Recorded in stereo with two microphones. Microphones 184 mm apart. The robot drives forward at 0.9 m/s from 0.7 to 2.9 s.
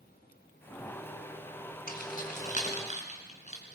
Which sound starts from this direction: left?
Keys jangling, at 1.9 s.